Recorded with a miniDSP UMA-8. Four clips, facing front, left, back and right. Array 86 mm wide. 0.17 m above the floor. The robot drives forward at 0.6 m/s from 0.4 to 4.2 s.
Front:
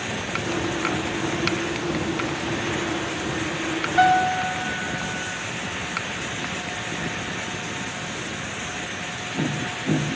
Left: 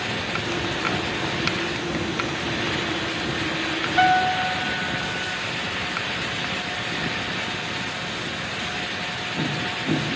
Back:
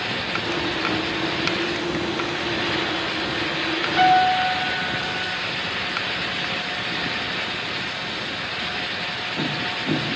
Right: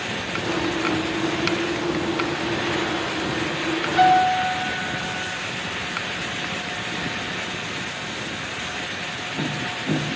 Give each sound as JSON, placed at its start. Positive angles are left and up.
{"t": 4.0, "sound": "a piano", "azimuth_deg": -160, "distance_m": 2.5}